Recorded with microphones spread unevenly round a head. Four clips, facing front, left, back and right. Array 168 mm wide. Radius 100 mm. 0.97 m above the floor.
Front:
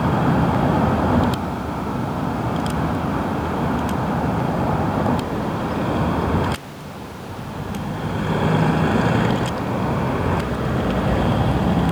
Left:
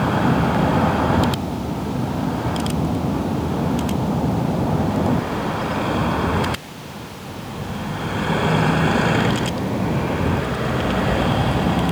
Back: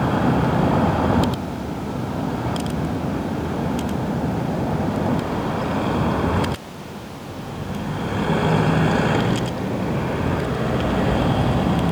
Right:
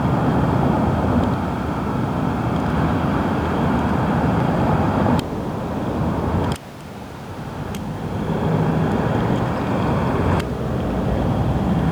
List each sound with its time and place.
Only background noise.